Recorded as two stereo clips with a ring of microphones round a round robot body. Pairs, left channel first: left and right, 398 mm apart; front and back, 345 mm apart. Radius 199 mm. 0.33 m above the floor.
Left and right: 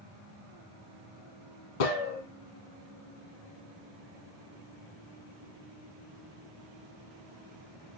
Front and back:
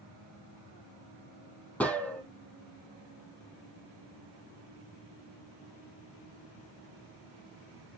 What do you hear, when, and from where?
1.8 s a gunshot: 85° left, 2.5 m